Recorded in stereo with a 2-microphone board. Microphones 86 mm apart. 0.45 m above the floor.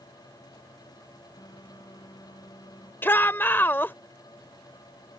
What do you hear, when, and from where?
1.4 s a phone buzzing: 50° left (ahead or behind)
3.0 s a shout: 25° left (ahead or behind)